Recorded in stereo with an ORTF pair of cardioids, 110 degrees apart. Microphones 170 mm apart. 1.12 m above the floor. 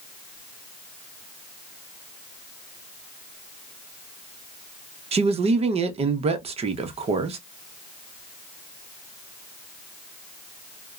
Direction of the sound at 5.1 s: 35° right.